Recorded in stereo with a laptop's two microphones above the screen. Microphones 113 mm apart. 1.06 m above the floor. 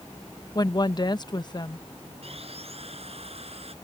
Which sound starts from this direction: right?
Sawing, at 2.2 s.